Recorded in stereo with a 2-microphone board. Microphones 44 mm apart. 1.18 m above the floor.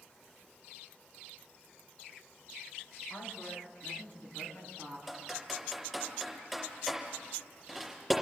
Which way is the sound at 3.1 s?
55° left (ahead or behind).